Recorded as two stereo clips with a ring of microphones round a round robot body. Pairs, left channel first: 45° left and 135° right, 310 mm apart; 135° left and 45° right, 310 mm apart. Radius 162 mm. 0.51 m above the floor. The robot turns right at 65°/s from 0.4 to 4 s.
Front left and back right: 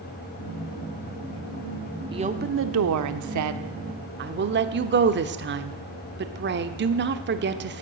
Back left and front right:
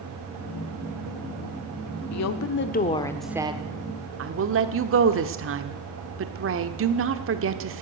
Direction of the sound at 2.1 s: 150° left.